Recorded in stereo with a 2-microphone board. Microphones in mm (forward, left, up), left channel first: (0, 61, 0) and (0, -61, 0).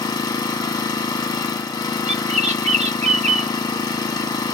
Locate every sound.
0.0 s an engine running: 35° left (ahead or behind), 1.0 m
2.1 s a bird: 70° right (ahead or behind), 0.8 m